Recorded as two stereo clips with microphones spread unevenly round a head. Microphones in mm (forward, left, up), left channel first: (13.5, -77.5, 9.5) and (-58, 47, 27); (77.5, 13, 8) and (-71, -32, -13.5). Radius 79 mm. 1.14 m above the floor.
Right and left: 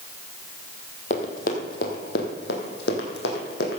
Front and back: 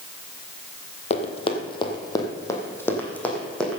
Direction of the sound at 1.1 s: 15° right.